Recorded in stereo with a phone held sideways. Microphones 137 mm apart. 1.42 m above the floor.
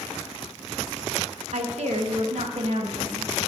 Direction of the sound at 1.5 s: 60° right (ahead or behind).